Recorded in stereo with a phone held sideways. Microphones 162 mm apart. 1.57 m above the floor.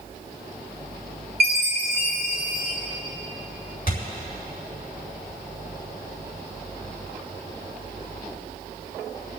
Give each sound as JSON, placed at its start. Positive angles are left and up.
{"t": 1.4, "sound": "a chime", "side_deg": -80, "distance_m": 2.0}
{"t": 3.9, "sound": "a thud", "side_deg": 60, "distance_m": 4.5}